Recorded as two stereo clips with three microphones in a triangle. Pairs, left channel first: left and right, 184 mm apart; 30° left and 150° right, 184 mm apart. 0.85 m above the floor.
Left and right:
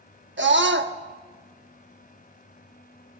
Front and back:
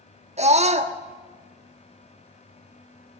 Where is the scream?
95° right, 1.1 m.